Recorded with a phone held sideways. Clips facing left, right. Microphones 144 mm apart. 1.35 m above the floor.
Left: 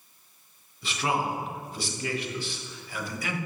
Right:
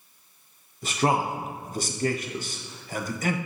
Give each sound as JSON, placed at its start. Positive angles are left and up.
{"t": 0.8, "sound": "a man speaking", "side_deg": -45, "distance_m": 0.9}